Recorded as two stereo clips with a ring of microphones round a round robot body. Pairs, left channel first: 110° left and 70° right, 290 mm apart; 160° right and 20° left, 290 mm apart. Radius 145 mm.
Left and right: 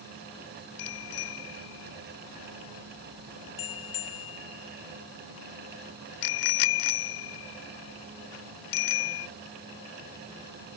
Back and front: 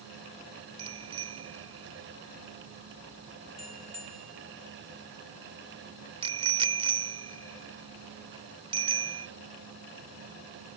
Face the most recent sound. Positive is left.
turn(degrees=95)